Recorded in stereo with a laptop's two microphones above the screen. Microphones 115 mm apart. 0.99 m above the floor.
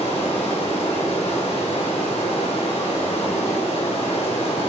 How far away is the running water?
About 2 m.